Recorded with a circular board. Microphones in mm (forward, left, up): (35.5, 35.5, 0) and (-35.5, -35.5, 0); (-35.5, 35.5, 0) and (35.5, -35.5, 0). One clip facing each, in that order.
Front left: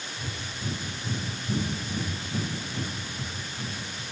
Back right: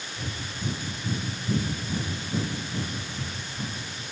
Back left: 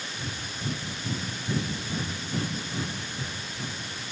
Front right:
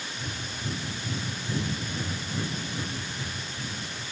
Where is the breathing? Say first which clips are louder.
Back right 3 dB, even; 165° right, 6.5 m.